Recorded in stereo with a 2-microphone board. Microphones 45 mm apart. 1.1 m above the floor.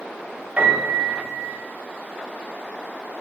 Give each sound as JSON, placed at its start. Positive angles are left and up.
{"t": 0.6, "sound": "a piano", "side_deg": -35, "distance_m": 0.8}